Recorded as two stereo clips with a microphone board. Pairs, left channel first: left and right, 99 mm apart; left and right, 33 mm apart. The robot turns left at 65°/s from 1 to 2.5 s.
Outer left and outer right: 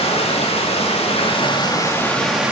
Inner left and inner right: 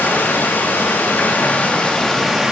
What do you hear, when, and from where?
0.0 s running water: 85° left, 3 m; by 2.5 s 15° right, 3 m